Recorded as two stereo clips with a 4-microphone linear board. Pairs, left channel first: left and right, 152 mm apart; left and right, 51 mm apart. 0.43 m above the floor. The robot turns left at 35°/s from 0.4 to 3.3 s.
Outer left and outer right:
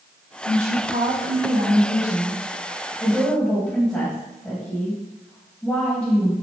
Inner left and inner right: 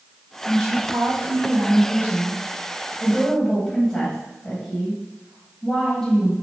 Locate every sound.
0.5 s a woman speaking: 95° right, 2.5 m; by 6.3 s 165° left, 2.5 m